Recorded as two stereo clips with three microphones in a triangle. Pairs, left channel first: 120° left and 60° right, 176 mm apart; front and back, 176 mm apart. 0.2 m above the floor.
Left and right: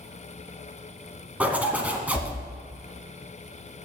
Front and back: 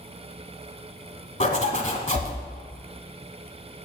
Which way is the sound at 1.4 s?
15° left.